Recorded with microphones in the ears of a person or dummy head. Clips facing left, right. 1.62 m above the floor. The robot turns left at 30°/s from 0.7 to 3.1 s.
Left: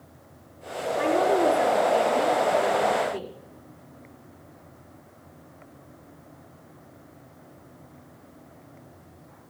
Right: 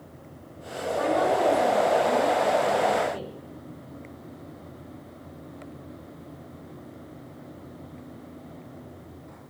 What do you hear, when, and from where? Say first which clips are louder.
1.0 s a woman speaking: left 1 dB; 155° left, 5 m; by 3.3 s 95° left, 5 m